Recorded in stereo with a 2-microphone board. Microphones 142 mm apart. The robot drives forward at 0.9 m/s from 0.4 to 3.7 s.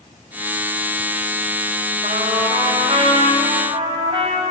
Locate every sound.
2.0 s a trumpet: 50° right (ahead or behind), 3.5 m; by 4.4 s 35° right (ahead or behind), 5 m